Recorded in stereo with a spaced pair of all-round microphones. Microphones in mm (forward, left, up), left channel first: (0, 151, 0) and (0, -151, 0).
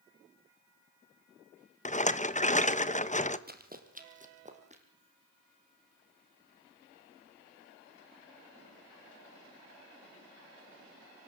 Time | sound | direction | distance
1.9 | a rattle | 25° left (ahead or behind) | 1.0 m
3.5 | running footsteps | 35° right (ahead or behind) | 2.5 m